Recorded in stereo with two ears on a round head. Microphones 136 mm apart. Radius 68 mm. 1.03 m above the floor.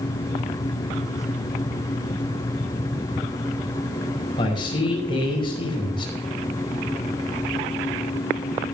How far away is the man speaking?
About 4.5 m.